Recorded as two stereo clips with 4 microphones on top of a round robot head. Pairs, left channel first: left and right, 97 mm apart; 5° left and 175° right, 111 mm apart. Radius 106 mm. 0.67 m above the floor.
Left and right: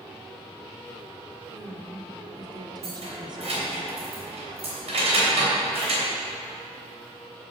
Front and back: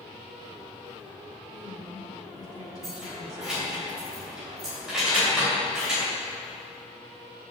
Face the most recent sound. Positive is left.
turn(degrees=-90)